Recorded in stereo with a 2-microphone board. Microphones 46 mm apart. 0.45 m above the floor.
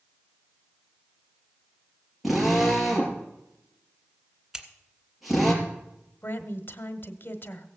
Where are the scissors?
10° right (ahead or behind), 1.8 m.